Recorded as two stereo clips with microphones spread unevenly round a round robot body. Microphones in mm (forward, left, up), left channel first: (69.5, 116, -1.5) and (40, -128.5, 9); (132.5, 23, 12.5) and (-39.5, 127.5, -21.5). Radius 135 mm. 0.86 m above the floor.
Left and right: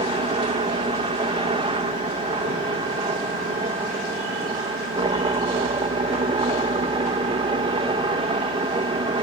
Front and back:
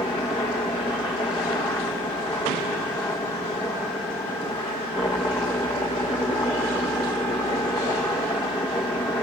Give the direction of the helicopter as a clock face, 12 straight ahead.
3 o'clock.